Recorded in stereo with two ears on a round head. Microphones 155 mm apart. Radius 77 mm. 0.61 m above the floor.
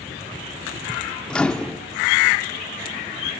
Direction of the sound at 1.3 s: 5° left (ahead or behind).